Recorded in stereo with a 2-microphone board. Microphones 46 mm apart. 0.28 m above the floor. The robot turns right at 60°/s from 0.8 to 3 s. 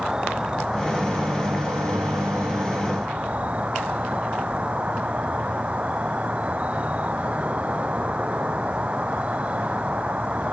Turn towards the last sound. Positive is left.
turn(degrees=-30)